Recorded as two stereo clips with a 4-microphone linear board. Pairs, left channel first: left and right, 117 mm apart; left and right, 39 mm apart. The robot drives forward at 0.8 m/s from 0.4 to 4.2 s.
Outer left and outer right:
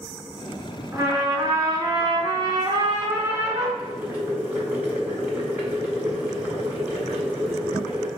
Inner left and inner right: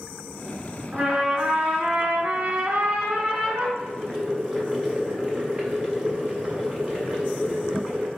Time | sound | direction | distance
0.9 | a trumpet | 25° right (ahead or behind) | 1.4 m
3.8 | boiling | 20° right (ahead or behind) | 1.4 m